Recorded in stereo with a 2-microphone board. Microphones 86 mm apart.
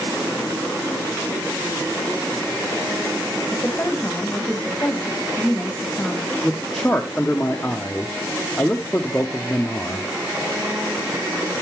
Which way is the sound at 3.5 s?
15° left (ahead or behind).